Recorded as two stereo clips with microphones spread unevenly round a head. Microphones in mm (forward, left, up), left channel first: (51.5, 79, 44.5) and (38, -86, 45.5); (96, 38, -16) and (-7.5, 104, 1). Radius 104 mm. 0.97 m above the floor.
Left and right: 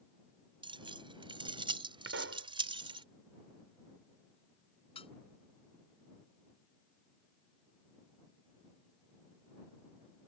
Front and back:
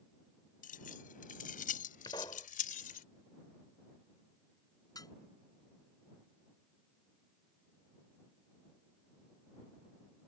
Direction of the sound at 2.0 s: 105° right.